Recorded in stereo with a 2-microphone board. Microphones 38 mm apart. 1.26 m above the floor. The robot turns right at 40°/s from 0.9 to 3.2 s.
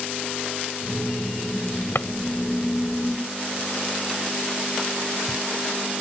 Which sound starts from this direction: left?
A drawer, at 1.9 s.